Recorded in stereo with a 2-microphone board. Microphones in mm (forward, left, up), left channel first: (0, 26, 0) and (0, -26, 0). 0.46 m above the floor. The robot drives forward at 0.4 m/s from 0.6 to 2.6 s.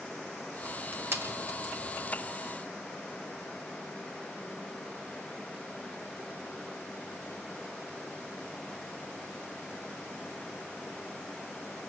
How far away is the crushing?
About 4 m.